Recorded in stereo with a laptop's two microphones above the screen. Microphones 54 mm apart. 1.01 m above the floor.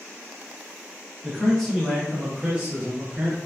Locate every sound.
1.2 s a man speaking: 10° left (ahead or behind), 1.1 m; by 3.4 s 40° right (ahead or behind), 0.9 m